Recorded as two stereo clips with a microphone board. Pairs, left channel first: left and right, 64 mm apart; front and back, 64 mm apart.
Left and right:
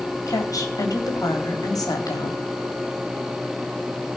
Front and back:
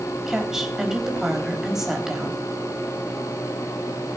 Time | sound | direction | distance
0.3 | a woman speaking | 95° left | 4 m